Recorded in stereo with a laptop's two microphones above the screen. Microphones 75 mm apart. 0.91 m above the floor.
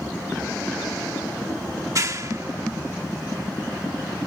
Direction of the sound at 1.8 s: 45° right (ahead or behind).